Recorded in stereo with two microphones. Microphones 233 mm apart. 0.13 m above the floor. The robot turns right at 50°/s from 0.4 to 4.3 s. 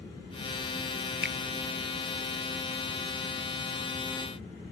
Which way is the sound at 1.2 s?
50° right (ahead or behind).